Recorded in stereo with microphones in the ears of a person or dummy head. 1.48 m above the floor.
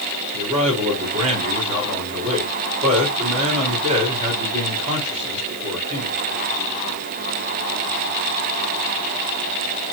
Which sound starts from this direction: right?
A man speaking, at 0.3 s.